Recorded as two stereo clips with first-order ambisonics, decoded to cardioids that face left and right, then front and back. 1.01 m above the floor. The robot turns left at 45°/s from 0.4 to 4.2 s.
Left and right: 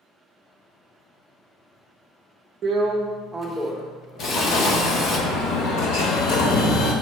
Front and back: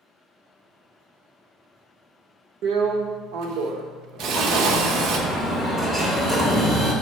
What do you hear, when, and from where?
2.6 s a drill: 145° right, 0.7 m; by 5.2 s 145° left, 0.7 m
4.2 s an explosion: 95° left, 1.1 m